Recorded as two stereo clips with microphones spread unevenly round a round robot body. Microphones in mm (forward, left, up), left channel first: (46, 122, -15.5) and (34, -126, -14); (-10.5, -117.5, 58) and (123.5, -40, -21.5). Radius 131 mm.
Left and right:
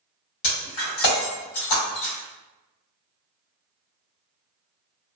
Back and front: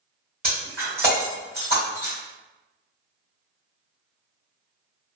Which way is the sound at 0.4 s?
110° left.